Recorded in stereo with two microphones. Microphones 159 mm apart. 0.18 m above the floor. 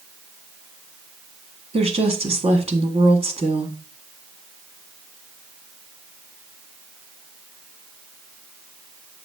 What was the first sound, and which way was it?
A woman speaking, 40° right (ahead or behind).